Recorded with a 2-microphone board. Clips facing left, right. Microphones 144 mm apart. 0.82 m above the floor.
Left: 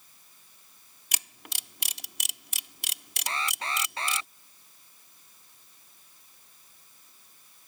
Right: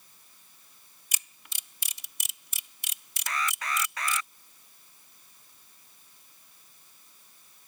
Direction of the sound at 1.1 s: 75° left (ahead or behind).